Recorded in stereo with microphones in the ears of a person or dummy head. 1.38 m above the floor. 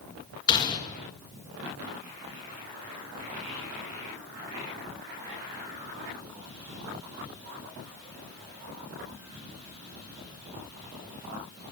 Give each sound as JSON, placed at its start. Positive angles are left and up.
{"t": 0.5, "sound": "a gunshot", "side_deg": 25, "distance_m": 2.5}